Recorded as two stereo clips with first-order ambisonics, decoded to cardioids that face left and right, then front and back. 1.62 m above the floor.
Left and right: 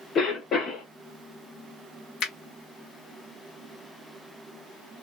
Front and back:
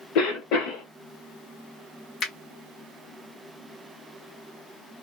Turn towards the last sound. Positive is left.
turn(degrees=50)